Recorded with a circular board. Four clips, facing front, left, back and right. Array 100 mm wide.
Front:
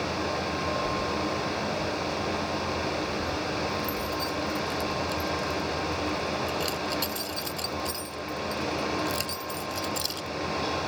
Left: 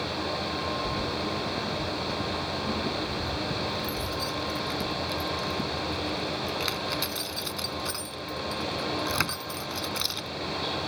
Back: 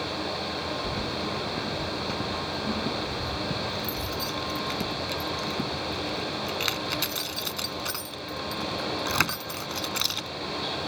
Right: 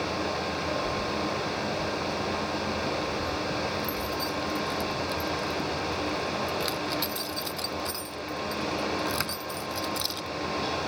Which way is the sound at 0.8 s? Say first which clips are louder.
Right 1 dB, front 3 dB; 165° left.